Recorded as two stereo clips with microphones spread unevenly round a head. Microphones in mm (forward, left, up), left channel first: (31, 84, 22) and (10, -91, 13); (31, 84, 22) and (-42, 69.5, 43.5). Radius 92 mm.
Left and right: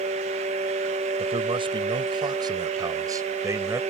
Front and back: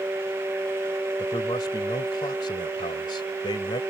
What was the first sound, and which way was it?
A man speaking, 35° right.